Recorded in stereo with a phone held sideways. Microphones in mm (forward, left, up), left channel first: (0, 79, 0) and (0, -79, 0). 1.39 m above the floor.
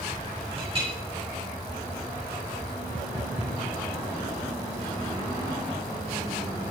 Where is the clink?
35° right (ahead or behind), 6 m.